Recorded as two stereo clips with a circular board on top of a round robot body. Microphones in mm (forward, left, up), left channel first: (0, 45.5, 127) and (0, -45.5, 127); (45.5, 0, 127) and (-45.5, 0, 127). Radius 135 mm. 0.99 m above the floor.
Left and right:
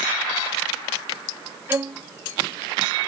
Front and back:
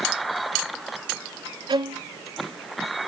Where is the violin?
155° right.